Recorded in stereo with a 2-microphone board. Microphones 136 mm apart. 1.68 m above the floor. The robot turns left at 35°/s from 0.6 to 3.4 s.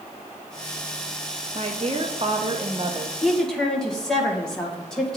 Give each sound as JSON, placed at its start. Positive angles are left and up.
{"t": 1.6, "sound": "a woman speaking", "azimuth_deg": -80, "distance_m": 0.7}
{"t": 3.2, "sound": "a woman speaking", "side_deg": 0, "distance_m": 1.5}